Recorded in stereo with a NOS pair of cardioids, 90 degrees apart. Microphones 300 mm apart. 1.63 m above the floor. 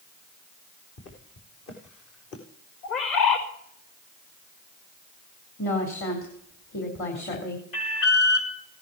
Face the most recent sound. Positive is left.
turn(degrees=50)